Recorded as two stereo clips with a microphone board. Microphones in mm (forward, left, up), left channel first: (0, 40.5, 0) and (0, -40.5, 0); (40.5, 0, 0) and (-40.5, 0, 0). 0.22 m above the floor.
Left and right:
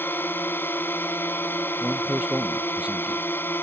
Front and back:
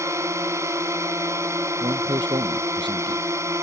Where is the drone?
145° left.